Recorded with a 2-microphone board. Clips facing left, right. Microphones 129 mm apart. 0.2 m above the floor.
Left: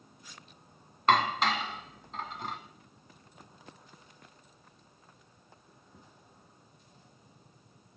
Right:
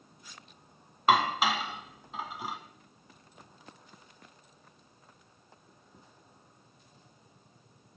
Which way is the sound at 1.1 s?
5° right (ahead or behind).